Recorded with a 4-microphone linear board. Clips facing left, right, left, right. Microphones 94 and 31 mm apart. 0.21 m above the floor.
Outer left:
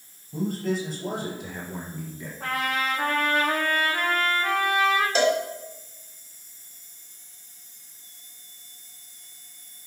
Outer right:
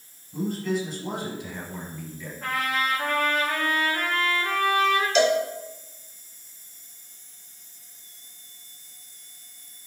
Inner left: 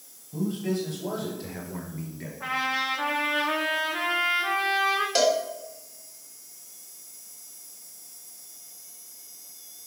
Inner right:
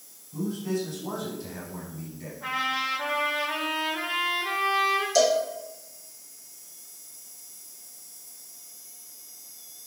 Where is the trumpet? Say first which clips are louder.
Even, inner left 1 dB; 80° left, 5.5 m.